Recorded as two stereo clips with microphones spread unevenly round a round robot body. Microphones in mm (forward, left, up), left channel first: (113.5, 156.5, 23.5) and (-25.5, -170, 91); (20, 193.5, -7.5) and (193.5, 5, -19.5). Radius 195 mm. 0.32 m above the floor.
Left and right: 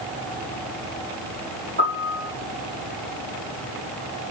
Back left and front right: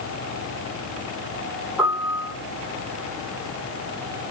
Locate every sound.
1.8 s a piano: 135° right, 8.5 m